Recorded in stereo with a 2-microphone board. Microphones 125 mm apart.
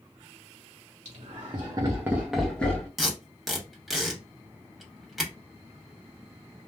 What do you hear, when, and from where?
1.1 s laughter: 60° right (ahead or behind), 0.9 m; by 2.9 s 20° left (ahead or behind), 0.9 m
3.0 s tape being pulled: centre (ahead or behind), 1.0 m